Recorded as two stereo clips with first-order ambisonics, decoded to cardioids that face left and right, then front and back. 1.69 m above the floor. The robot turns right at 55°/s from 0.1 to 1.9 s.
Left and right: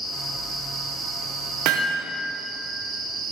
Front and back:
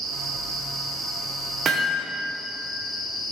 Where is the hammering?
120° right, 1.1 m; by 2.0 s 105° right, 1.1 m.